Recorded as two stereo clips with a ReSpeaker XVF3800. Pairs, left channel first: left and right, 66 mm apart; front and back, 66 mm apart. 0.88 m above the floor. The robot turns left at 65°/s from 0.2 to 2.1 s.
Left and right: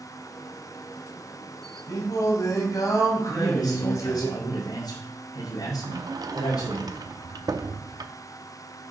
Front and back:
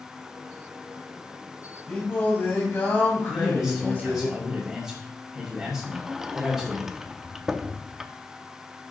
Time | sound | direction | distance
1.9 | singing | 75° left | 2.5 m
3.3 | a man speaking | 100° left | 3 m
5.8 | a sliding door | 95° right | 0.6 m